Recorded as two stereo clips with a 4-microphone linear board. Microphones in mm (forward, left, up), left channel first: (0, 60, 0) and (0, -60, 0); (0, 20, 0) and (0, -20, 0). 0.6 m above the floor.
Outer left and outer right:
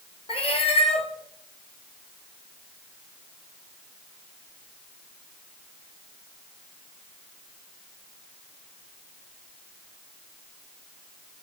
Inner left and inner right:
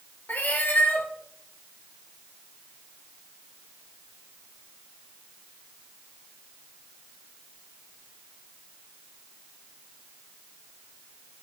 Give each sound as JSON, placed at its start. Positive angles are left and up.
{"t": 0.3, "sound": "a cat meowing", "side_deg": 55, "distance_m": 1.1}